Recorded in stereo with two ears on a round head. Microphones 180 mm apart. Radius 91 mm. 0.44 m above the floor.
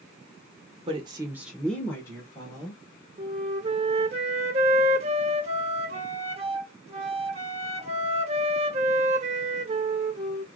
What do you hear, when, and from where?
0.9 s a woman speaking: 30° right (ahead or behind), 1.0 m; by 2.8 s 25° left (ahead or behind), 2 m
3.2 s a flute: 35° right (ahead or behind), 0.7 m